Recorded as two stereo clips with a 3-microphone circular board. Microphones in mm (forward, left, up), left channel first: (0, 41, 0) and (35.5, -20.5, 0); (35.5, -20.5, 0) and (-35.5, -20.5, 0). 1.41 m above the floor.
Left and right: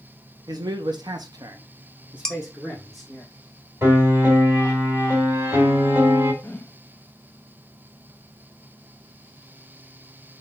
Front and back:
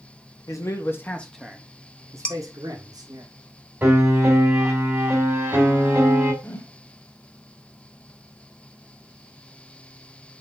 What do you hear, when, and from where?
0.5 s a man speaking: 40° right, 1.1 m; by 3.2 s 155° right, 1.8 m
2.2 s dishes clattering: 50° left, 0.6 m
3.8 s a piano: 115° right, 2.5 m
6.4 s a whoosh: 55° left, 0.8 m